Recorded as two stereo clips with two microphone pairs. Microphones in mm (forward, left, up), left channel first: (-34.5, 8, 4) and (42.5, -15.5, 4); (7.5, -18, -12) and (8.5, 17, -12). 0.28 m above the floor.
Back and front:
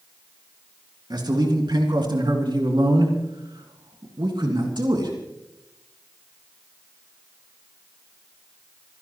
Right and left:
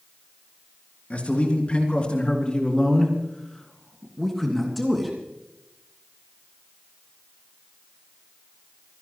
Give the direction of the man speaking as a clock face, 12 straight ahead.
1 o'clock.